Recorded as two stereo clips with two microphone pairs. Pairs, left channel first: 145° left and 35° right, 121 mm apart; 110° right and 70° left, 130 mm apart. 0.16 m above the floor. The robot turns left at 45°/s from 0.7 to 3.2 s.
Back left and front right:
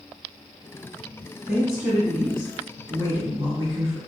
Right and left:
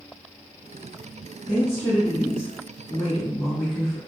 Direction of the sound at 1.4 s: 60° left.